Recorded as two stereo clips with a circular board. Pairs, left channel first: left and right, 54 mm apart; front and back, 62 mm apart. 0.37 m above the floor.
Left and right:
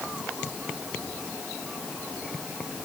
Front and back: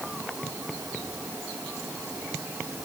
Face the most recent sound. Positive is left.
No sound to turn to.